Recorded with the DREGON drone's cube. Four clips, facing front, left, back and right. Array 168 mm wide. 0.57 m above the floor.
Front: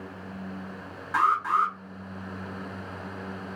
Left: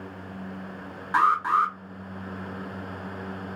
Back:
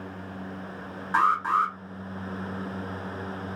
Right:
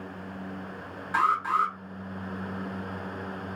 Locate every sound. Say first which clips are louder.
1.1 s an alarm: left 3 dB, even; 125° left, 0.8 m